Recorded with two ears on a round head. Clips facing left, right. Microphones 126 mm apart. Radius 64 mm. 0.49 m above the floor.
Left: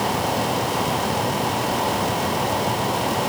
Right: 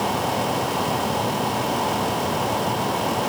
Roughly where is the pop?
I don't hear a pop.